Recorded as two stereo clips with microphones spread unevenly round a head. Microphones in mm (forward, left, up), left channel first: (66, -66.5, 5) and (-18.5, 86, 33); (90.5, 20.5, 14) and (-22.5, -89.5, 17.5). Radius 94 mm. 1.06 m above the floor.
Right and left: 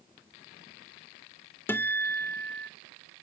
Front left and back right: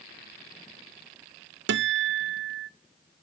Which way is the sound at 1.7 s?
140° right.